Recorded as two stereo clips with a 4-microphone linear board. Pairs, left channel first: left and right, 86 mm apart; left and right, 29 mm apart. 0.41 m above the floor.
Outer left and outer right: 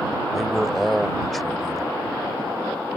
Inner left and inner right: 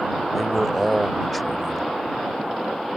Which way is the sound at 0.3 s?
Centre (ahead or behind).